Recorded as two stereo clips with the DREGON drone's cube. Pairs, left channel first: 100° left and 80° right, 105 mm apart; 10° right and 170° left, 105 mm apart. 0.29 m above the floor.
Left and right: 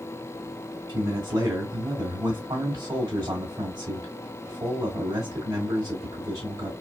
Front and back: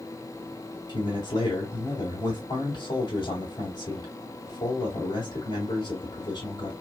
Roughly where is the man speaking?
Ahead right.